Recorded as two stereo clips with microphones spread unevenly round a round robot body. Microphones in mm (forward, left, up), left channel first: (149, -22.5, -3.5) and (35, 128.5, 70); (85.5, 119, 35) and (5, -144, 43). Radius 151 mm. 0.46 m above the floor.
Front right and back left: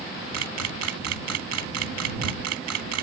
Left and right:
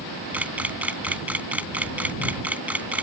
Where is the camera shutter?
170° left.